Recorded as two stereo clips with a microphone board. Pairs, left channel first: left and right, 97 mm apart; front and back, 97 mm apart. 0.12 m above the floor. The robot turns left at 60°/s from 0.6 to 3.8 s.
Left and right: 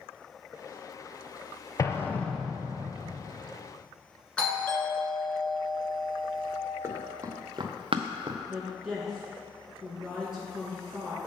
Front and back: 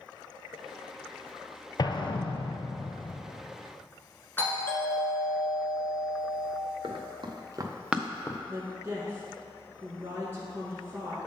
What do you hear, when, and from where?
1.8 s an explosion: 40° left, 0.6 m; by 3.2 s 45° right, 0.6 m
4.4 s a doorbell: 30° left, 1.7 m
6.8 s running footsteps: 155° right, 1.4 m; by 8.4 s 55° right, 0.7 m
8.5 s a woman speaking: 160° right, 1.1 m